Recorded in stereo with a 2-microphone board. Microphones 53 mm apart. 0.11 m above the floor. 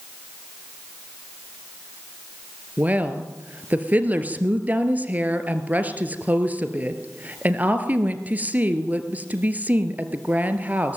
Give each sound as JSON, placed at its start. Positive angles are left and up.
{"t": 2.8, "sound": "a woman speaking", "side_deg": -30, "distance_m": 2.0}